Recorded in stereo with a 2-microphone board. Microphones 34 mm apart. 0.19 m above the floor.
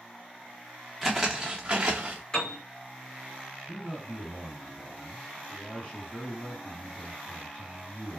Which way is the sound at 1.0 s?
5° right (ahead or behind).